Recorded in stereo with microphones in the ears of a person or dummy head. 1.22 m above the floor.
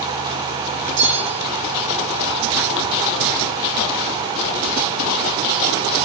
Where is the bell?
85° right, 7 m.